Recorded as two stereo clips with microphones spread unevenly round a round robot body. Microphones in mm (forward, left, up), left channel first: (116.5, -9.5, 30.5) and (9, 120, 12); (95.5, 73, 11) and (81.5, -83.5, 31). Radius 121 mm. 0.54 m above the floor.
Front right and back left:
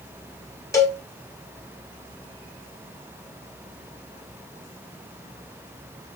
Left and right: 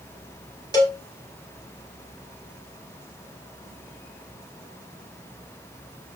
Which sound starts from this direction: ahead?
A cowbell, at 0.7 s.